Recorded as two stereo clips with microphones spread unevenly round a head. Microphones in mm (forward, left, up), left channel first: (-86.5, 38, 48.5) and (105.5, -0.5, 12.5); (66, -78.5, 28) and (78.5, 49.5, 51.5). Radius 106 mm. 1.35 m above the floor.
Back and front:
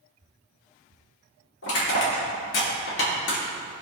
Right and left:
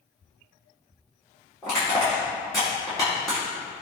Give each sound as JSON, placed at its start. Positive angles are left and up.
{"t": 1.6, "sound": "crushing", "azimuth_deg": -175, "distance_m": 4.0}